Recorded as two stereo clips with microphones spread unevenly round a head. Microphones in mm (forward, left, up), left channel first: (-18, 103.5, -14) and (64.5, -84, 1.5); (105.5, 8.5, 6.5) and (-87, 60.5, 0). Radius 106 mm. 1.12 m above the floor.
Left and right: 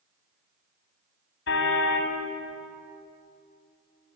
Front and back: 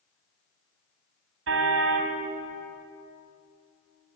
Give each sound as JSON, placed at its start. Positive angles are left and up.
{"t": 1.5, "sound": "a car horn", "azimuth_deg": 150, "distance_m": 3.0}